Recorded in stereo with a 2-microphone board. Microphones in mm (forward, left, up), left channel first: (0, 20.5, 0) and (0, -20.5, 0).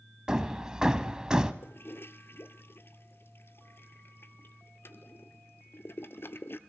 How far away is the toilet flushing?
About 1.0 m.